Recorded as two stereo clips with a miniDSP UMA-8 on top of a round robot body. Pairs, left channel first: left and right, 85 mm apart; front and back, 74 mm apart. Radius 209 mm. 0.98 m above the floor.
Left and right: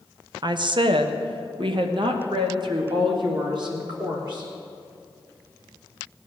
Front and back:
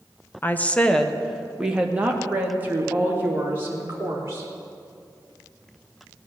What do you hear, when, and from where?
0.4 s a woman speaking: 60° right, 1.2 m; by 4.5 s 125° right, 4 m